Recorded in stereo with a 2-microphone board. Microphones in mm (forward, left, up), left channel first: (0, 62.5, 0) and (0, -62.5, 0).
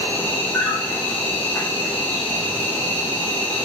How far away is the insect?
About 3 m.